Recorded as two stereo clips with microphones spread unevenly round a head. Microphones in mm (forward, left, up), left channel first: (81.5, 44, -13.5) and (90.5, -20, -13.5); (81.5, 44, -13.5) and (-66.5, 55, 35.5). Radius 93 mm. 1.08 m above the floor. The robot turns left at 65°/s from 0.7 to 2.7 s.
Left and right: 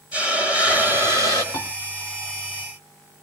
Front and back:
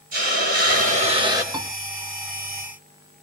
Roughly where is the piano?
Behind left.